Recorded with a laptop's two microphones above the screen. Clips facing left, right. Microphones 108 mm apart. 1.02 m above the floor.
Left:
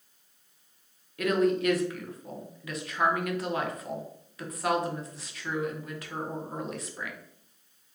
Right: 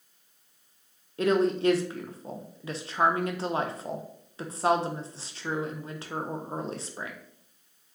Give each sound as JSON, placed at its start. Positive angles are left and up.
{"t": 1.2, "sound": "a woman speaking", "side_deg": -30, "distance_m": 0.6}